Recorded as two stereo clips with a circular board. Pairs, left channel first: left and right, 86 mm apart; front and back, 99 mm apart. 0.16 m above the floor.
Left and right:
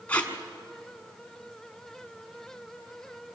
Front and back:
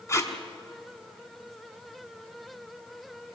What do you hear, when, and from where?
0.1 s tape being pulled: 30° left, 1.6 m